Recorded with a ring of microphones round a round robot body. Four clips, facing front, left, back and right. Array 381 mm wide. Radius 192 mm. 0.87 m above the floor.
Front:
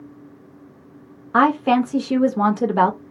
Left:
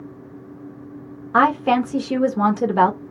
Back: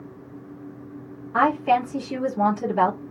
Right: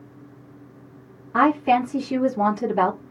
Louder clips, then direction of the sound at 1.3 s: Left 2 dB, front 3 dB; 45° left.